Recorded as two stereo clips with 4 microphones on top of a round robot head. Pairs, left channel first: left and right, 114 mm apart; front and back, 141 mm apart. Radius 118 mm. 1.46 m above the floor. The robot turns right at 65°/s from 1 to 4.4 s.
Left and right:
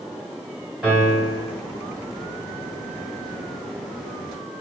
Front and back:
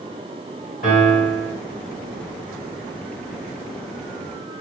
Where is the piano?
Straight ahead, 1.9 m; by 1.5 s 35° left, 1.9 m.